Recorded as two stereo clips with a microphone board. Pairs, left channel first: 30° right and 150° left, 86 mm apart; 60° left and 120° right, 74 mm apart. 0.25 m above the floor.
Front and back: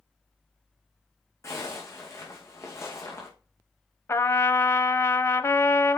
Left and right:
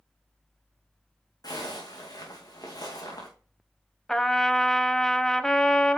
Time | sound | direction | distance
1.4 | a zipper | 25° left | 3 m
4.1 | a trumpet | 15° right | 0.6 m